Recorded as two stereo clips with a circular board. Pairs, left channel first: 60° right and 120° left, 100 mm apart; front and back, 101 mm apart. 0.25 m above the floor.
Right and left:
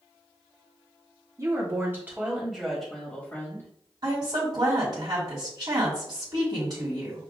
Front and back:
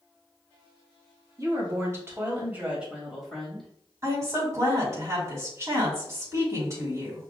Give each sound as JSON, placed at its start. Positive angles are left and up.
{"t": 1.4, "sound": "a woman speaking", "azimuth_deg": 155, "distance_m": 1.7}
{"t": 4.0, "sound": "a woman speaking", "azimuth_deg": 135, "distance_m": 1.7}